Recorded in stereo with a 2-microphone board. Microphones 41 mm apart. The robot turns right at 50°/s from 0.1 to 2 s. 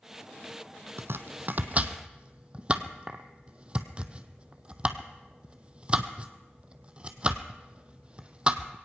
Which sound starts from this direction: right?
Chopping, at 1.0 s.